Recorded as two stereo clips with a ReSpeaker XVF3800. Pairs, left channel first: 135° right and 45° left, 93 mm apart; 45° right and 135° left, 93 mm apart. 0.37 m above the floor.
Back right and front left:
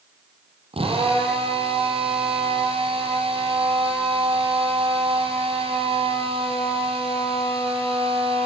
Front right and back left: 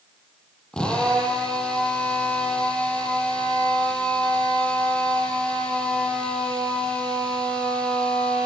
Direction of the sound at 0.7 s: 35° left.